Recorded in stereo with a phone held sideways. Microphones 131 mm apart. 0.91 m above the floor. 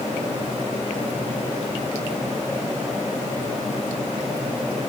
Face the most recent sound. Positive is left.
No sound to turn to.